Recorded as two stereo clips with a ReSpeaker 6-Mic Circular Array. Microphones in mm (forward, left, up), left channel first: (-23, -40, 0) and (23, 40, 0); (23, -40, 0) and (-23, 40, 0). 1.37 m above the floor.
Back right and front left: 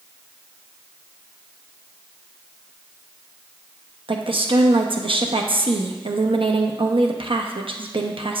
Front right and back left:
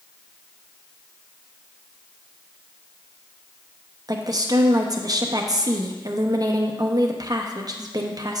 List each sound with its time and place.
4.1 s a woman speaking: 75° left, 0.7 m